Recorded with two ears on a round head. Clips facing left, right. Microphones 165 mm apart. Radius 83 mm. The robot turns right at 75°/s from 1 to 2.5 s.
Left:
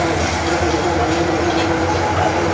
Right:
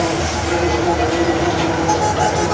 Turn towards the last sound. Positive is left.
turn(degrees=-135)